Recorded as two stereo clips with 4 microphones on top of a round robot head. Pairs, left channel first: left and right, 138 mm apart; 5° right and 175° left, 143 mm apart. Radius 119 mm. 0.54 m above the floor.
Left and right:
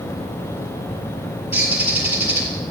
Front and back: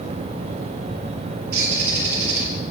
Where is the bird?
170° right, 6.5 m.